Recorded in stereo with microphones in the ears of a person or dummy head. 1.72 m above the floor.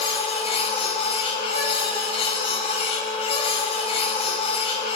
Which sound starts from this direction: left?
A machine running, at 0.0 s.